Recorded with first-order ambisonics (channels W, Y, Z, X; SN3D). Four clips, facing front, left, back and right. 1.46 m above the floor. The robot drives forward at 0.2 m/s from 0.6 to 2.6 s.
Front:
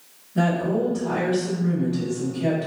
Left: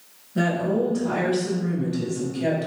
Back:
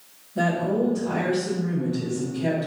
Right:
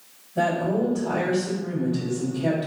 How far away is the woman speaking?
About 2.0 m.